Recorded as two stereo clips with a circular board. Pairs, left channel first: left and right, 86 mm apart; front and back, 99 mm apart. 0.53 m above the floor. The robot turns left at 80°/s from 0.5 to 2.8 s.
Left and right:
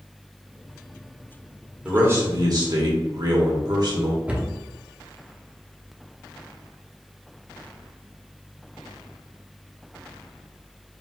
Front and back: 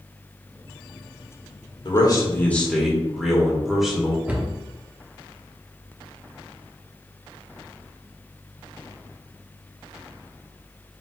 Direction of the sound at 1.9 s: 20° right.